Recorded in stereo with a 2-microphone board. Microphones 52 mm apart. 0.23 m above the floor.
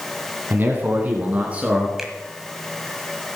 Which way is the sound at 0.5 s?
40° right (ahead or behind).